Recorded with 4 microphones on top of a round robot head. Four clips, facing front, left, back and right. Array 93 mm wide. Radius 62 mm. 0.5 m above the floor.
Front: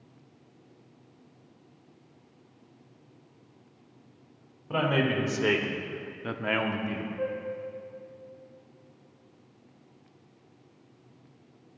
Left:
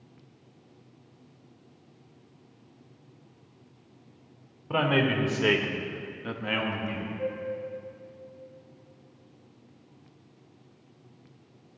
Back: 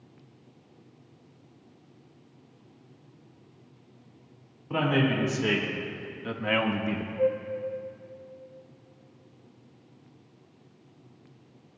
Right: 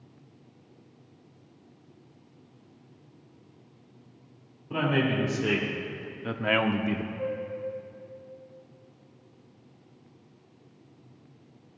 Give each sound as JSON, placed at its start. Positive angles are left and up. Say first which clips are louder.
{"t": 4.7, "sound": "a man speaking", "louder": "left 1 dB, back 1 dB", "azimuth_deg": 60, "distance_m": 2.5}
{"t": 7.2, "sound": "a flute", "louder": "even, back 8 dB", "azimuth_deg": -5, "distance_m": 2.5}